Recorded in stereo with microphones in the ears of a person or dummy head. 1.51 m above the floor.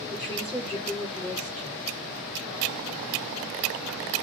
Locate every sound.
0.1 s a woman speaking: 5° right (ahead or behind), 5.5 m